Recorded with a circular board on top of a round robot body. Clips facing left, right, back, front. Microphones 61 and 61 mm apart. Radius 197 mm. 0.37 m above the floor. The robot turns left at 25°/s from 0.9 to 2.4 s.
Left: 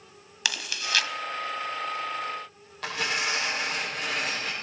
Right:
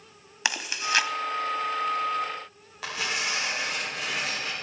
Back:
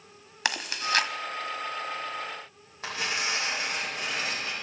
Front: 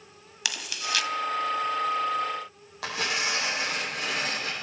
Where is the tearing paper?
5° right, 7 m.